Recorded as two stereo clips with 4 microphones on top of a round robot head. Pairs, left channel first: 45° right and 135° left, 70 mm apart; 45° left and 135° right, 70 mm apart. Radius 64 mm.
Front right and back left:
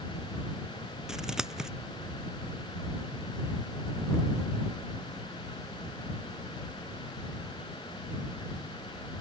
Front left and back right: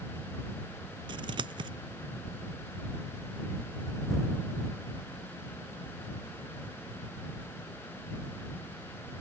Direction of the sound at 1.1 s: 140° right.